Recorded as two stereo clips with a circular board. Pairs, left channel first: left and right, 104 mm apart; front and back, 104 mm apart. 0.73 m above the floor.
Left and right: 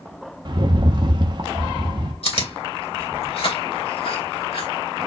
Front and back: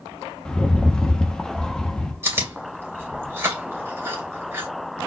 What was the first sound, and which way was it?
A rattle, 80° right.